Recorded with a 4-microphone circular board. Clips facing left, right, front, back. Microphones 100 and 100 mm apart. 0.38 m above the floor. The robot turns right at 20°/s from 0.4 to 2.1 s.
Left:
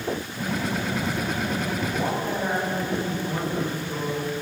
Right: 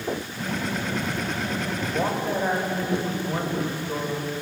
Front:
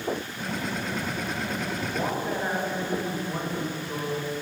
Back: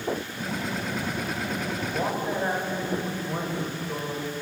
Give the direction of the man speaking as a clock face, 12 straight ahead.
4 o'clock.